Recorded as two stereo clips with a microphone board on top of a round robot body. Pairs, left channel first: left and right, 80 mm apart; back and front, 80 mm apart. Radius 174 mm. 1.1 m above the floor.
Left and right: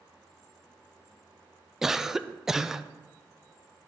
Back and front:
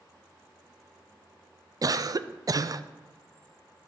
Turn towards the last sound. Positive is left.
turn(degrees=-10)